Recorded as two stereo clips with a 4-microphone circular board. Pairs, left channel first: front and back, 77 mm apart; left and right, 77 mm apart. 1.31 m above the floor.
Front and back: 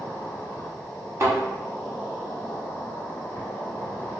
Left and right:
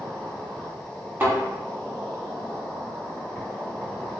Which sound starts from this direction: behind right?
A thud, at 1.2 s.